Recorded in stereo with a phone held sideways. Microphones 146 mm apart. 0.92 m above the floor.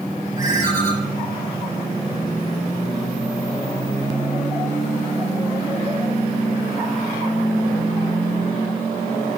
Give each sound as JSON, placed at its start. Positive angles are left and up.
{"t": 0.4, "sound": "a ringtone", "side_deg": 65, "distance_m": 5.5}